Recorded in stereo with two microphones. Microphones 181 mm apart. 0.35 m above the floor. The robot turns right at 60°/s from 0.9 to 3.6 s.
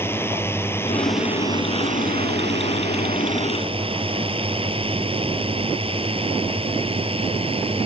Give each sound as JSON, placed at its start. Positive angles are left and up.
{"t": 0.0, "sound": "a drone", "side_deg": 15}